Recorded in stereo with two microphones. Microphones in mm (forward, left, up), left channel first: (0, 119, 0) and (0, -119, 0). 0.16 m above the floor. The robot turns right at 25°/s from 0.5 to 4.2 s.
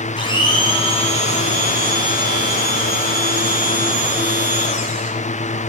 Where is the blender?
30° left, 1.2 m; by 5.1 s 125° left, 1.2 m.